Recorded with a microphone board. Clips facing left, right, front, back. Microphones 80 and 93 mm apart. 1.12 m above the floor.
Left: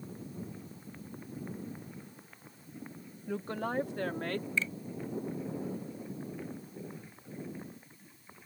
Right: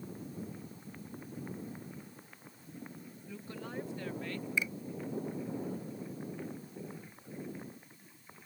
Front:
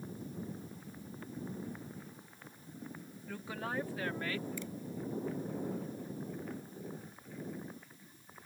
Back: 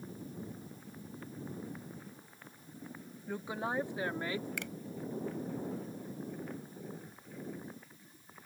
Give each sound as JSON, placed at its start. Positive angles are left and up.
{"t": 3.3, "sound": "a woman speaking", "azimuth_deg": 110}
{"t": 4.6, "sound": "a finger snap", "azimuth_deg": -165}